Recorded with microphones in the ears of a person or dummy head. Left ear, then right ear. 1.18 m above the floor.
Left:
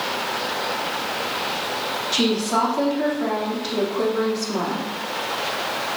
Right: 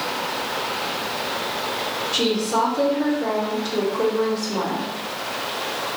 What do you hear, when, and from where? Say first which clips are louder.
2.1 s a woman speaking: even; 65° left (ahead or behind), 1.7 m